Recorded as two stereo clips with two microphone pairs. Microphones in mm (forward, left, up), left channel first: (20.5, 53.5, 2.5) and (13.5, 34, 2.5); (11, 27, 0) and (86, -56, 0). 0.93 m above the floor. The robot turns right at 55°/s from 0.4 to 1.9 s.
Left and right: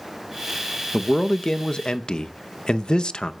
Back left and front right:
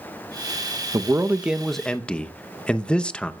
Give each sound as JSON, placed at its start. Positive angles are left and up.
{"t": 0.9, "sound": "a man speaking", "azimuth_deg": -5, "distance_m": 0.7}